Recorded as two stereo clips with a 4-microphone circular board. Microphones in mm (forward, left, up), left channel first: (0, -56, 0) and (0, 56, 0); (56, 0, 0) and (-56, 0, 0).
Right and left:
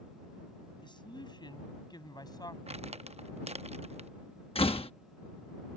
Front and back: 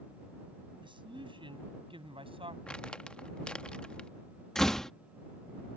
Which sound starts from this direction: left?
Crumpling, at 2.7 s.